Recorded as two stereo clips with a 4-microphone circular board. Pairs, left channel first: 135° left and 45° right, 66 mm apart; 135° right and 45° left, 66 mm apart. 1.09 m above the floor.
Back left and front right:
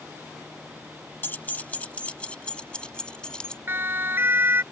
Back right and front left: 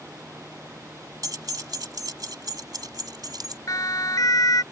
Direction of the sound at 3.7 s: 100° right.